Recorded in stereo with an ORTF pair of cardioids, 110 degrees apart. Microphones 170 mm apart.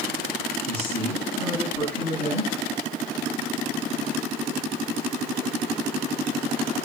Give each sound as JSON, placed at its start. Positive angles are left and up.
{"t": 0.6, "sound": "a woman speaking", "azimuth_deg": -65, "distance_m": 8.5}